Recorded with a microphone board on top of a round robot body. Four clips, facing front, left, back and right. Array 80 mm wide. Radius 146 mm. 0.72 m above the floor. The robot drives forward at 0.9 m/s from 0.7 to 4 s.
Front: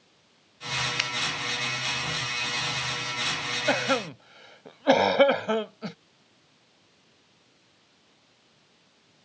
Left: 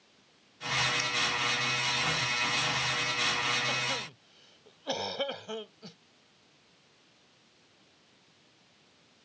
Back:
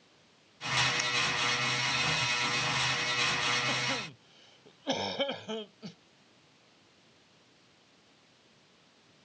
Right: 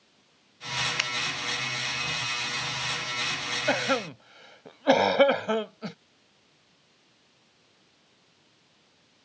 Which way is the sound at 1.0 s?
55° right.